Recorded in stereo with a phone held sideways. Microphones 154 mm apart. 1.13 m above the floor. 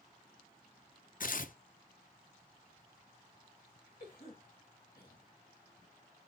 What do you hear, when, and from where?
1.2 s tearing paper: 60° left (ahead or behind), 0.5 m
4.0 s a cough: 75° left (ahead or behind), 1.6 m